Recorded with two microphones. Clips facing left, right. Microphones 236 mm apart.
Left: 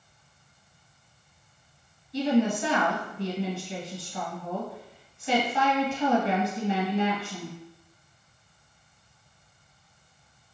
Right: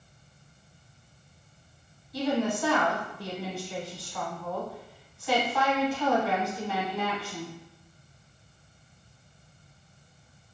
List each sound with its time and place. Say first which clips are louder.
2.1 s a woman speaking: left 4 dB; 25° left (ahead or behind), 1.2 m